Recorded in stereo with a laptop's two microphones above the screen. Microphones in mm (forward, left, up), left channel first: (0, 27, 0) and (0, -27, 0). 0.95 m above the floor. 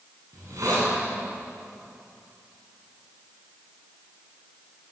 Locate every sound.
0.3 s a hiss: 85° right, 9.5 m